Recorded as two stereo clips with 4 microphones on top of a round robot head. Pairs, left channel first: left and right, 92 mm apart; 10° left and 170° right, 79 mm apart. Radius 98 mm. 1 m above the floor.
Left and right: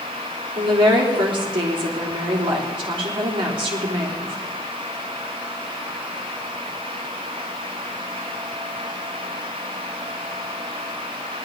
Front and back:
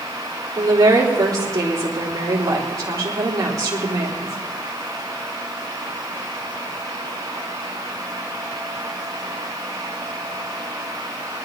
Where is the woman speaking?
120° right, 4 m.